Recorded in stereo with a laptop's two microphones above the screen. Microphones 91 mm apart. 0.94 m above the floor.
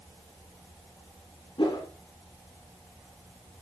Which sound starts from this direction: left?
A whoosh, at 1.6 s.